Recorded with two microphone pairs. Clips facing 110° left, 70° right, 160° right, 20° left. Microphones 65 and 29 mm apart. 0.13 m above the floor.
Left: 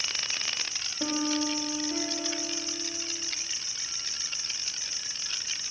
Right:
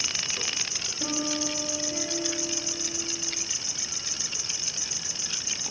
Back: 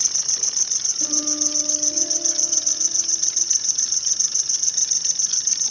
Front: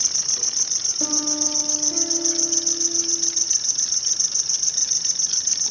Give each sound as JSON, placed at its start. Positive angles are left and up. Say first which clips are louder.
{"t": 0.0, "sound": "an insect", "louder": "right 1 dB, even", "azimuth_deg": -50, "distance_m": 2.5}
{"t": 1.0, "sound": "a piano", "louder": "left 2 dB, front 2 dB", "azimuth_deg": 35, "distance_m": 7.0}